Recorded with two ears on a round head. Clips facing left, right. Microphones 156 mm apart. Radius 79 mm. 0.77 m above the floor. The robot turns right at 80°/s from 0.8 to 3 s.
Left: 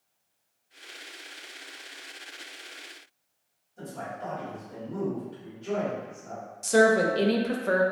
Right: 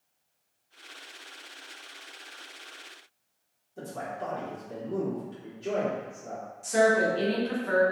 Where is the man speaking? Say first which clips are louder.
Right 1 dB; 75° right (ahead or behind), 1.7 m.